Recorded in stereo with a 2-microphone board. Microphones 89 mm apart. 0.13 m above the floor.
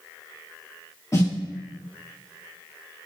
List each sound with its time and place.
1.1 s a snare drum: 35° left (ahead or behind), 1.6 m